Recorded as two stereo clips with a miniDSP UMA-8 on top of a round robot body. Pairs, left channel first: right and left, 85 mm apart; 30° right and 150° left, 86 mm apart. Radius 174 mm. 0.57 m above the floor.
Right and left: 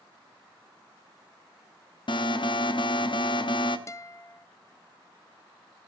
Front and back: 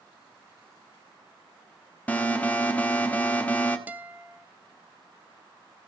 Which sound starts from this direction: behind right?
A guitar, at 3.9 s.